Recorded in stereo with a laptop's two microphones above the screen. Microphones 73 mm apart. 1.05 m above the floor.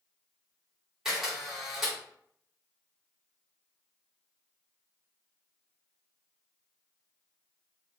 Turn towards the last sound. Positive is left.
turn(degrees=-5)  # may be behind; listen again after turning